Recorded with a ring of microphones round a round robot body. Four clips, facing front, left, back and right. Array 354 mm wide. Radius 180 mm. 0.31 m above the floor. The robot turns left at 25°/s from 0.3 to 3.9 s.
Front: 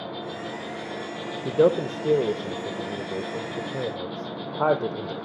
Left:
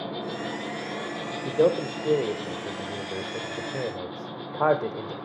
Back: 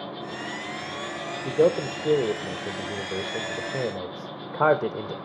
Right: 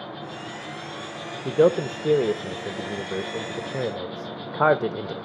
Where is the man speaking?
55° right, 0.9 m; by 5.1 s 115° right, 0.9 m.